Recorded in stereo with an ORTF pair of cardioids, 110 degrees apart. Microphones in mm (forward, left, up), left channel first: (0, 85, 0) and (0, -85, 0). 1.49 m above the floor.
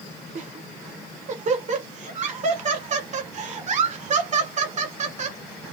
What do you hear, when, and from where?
0.3 s laughter: 45° right, 1.1 m